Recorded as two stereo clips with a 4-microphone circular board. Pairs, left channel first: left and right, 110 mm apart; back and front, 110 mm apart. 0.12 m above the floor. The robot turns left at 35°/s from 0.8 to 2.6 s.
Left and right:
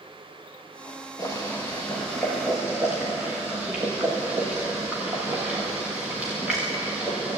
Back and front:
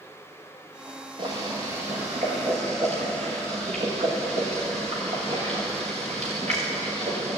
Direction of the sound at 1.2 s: 40° left.